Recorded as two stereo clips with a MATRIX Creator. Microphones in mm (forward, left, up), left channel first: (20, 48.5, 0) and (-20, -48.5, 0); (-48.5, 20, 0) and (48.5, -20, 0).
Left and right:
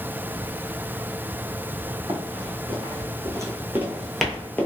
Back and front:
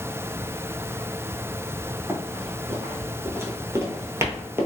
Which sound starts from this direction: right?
Running footsteps, at 2.1 s.